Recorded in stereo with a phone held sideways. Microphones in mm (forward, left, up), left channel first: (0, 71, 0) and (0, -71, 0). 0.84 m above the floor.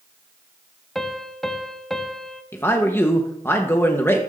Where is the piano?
Centre (ahead or behind), 0.8 m.